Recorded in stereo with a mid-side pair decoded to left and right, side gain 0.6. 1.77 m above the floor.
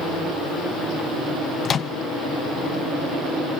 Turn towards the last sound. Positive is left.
turn(degrees=40)